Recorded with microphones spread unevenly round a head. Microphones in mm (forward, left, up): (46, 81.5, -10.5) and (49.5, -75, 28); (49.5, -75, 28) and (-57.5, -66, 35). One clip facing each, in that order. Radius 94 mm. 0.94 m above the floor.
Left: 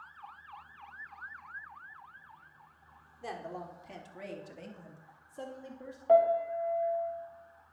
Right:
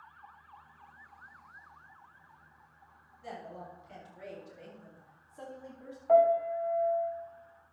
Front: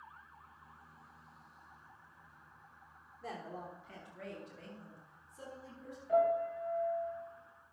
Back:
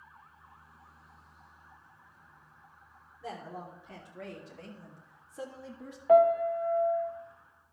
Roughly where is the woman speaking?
Left.